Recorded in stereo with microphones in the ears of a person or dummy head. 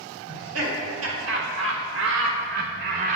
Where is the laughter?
70° right (ahead or behind), 2.5 m; by 3.2 s 35° right (ahead or behind), 1.0 m.